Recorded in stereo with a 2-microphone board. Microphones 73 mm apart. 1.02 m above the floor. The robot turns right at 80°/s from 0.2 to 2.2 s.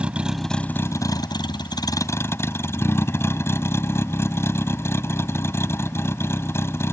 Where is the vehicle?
15° right; by 6.9 s 145° left.